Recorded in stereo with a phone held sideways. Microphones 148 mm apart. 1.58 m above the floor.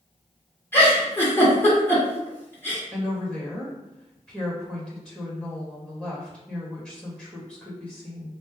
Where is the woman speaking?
5° left (ahead or behind), 1.8 m.